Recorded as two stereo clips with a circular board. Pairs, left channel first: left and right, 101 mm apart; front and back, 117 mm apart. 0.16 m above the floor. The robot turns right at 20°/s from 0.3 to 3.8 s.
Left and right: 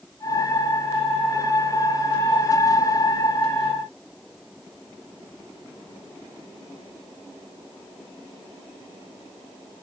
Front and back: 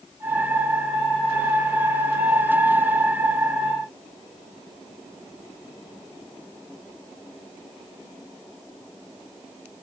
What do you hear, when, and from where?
Only background noise.